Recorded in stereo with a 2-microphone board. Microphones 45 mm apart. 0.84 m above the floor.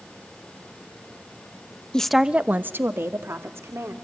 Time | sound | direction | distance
1.9 | a woman speaking | 15° left (ahead or behind) | 0.7 m